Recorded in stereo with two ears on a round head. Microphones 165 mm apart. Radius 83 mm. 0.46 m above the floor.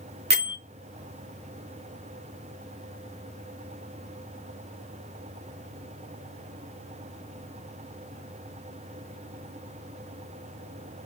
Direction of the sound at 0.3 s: 55° right (ahead or behind).